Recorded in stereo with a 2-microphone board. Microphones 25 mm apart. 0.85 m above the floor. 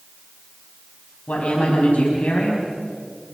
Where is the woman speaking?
60° left (ahead or behind), 6 m.